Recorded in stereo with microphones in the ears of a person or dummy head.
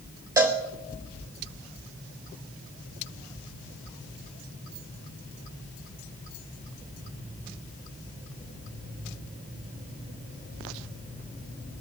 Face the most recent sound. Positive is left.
turn(degrees=-15)  # may be behind; listen again after turning